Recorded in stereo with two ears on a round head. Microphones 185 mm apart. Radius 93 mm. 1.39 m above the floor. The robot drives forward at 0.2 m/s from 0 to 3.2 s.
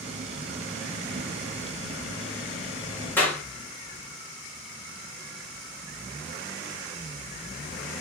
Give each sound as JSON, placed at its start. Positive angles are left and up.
{"t": 3.2, "sound": "a clap", "side_deg": 10, "distance_m": 1.1}